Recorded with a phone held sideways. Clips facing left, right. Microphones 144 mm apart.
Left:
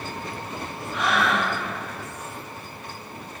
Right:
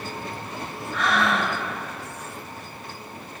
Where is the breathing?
25° left (ahead or behind), 4.5 m.